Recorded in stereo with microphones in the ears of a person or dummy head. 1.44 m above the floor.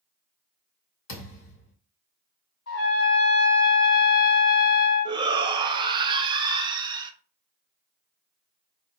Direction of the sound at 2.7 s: 65° left (ahead or behind).